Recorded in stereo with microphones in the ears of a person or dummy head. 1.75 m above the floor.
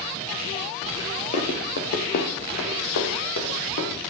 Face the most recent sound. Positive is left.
turn(degrees=70)  # may be behind; listen again after turning